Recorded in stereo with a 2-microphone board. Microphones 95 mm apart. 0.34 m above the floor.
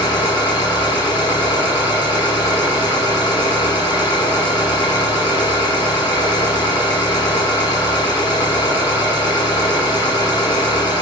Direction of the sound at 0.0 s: 50° left (ahead or behind).